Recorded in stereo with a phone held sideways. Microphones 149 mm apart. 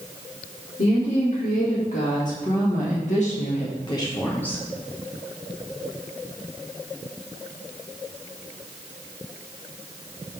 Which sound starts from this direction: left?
A woman speaking, at 0.8 s.